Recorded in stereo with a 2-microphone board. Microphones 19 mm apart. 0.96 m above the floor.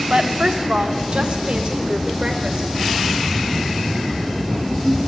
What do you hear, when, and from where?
0.1 s a woman speaking: 65° right (ahead or behind), 1.6 m; by 2.7 s 60° right (ahead or behind), 3 m